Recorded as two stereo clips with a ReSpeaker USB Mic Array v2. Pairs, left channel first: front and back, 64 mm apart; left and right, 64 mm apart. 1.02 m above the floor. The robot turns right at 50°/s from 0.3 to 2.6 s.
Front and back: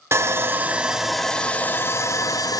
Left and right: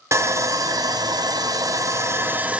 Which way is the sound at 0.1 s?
130° right.